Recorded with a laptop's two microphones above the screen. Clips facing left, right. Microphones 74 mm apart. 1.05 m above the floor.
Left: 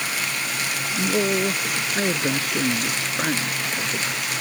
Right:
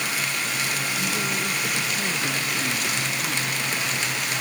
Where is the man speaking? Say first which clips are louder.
Left 5 dB; 75° left (ahead or behind).